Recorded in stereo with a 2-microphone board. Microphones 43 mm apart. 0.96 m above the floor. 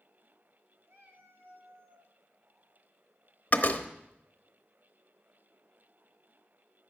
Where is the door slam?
45° left (ahead or behind), 1.0 m.